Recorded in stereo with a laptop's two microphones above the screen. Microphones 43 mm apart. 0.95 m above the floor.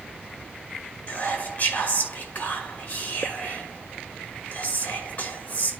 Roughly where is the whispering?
Left.